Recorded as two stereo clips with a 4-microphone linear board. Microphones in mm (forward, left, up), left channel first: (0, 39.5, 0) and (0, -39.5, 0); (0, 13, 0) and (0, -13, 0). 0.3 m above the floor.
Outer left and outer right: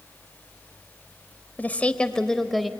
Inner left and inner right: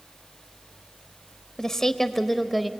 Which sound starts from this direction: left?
A woman speaking, at 1.6 s.